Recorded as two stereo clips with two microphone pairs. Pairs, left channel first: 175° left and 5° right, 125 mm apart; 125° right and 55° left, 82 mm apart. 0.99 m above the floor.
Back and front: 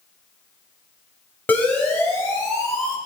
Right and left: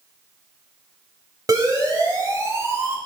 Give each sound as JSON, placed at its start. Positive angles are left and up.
{"t": 1.5, "sound": "a siren", "azimuth_deg": 100, "distance_m": 6.0}